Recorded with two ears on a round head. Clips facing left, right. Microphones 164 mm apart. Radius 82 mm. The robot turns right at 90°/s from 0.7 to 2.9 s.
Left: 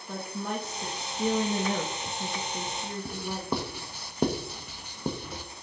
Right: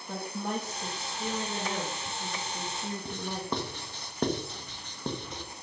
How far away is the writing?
About 0.9 m.